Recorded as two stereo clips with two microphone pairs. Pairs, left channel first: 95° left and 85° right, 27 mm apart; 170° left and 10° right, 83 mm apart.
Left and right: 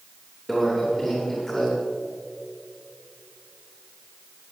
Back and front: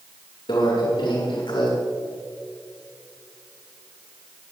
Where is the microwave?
175° left, 7 m.